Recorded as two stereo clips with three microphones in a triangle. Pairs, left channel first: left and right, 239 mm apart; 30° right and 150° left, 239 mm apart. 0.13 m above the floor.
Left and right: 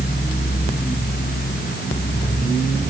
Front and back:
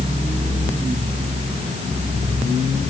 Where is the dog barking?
No dog barking in this recording.